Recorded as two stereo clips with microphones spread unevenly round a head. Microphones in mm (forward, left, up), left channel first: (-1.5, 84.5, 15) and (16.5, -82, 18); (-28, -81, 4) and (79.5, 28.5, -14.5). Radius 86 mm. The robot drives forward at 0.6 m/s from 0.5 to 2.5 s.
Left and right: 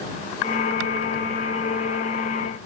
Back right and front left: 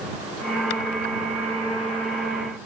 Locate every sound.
Only background noise.